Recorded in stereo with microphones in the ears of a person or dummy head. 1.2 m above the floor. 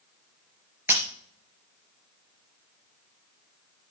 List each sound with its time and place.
0.9 s breaking glass: 10° right (ahead or behind), 3.5 m